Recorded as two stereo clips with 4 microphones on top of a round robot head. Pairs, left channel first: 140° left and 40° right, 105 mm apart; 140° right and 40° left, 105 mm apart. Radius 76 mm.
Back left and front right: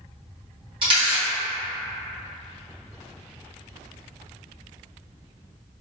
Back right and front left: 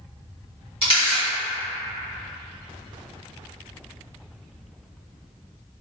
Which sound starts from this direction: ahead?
A camera shutter, at 0.8 s.